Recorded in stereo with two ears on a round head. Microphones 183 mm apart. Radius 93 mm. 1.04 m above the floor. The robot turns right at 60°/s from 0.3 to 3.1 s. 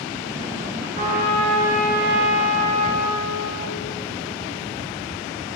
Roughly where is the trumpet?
Behind right.